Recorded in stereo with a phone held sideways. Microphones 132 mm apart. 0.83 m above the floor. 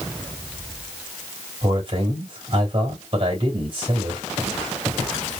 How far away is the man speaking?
About 3 m.